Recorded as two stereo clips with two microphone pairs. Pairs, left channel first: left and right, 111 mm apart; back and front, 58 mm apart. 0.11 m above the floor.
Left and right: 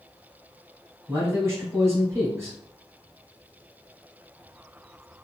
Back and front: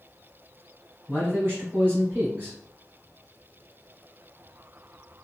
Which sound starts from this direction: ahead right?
A man speaking, at 1.1 s.